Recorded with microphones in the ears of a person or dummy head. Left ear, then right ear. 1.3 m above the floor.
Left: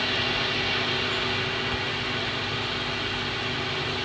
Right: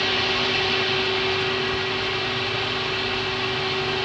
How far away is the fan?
About 0.9 m.